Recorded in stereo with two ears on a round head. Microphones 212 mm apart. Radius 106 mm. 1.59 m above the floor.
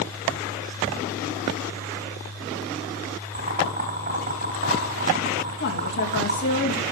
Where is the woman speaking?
50° left (ahead or behind), 2.5 m.